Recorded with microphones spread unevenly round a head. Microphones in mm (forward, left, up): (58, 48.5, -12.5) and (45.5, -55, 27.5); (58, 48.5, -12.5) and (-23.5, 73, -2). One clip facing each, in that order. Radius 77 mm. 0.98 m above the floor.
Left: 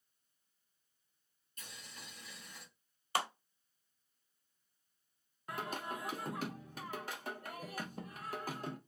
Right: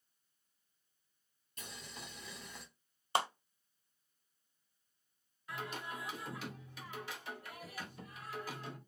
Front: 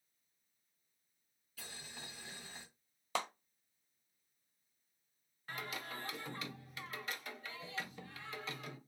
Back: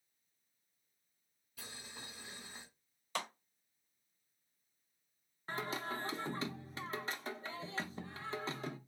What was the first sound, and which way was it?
Boiling, 115° right.